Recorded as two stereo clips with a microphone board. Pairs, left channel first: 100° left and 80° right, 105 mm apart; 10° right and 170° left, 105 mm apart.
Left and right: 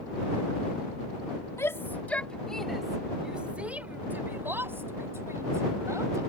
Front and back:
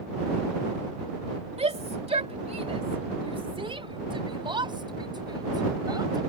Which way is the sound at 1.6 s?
160° left.